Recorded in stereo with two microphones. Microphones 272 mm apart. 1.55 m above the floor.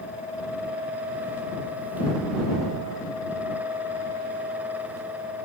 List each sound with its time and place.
Only background noise.